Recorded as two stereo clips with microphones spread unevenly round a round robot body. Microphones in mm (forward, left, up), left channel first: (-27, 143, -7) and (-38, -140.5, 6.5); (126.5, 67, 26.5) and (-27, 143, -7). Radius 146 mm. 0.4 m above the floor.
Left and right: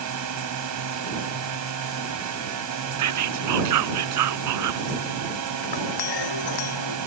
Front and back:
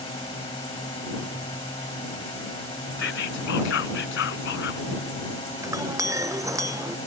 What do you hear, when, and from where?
0.0 s a drone: 95° right
3.0 s whispering: 60° right
5.6 s a clink: 80° left